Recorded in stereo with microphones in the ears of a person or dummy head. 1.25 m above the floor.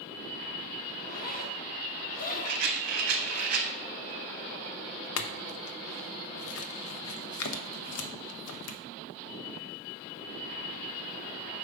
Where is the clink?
75° left (ahead or behind), 0.6 m.